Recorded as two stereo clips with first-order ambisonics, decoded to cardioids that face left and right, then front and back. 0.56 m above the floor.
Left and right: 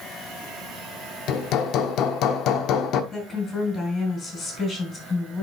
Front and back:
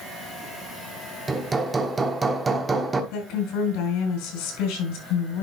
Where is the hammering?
110° left, 1.1 m.